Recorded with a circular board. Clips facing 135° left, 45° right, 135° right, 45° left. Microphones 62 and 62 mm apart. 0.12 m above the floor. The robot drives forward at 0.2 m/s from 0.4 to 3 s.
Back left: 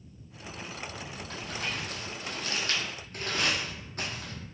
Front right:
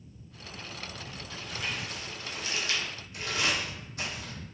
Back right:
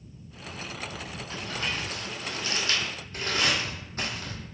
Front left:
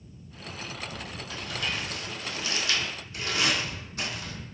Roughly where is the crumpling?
Behind.